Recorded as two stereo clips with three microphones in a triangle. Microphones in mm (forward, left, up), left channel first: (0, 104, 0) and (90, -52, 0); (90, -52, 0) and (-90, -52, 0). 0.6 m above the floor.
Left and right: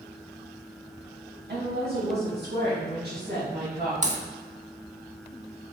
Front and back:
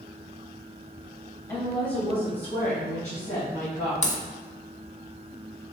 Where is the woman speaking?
70° right, 4 m; by 3.9 s 35° right, 5 m.